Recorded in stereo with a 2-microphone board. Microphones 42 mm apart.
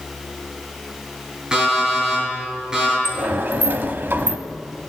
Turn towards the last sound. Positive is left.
turn(degrees=-50)  # may be behind; listen again after turning